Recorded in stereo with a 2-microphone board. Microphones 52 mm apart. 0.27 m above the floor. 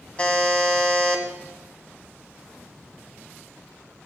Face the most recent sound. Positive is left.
turn(degrees=25)  # may be behind; listen again after turning